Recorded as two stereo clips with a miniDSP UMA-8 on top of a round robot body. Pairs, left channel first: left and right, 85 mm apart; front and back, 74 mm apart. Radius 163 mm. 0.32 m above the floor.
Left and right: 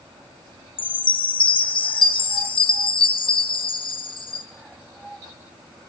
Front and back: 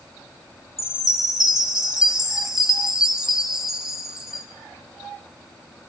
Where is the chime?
95° left, 3.5 m.